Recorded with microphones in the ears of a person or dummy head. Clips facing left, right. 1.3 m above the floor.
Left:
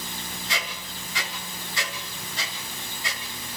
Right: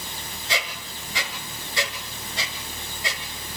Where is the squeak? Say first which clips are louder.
Right 6 dB; 30° right (ahead or behind), 1.6 m.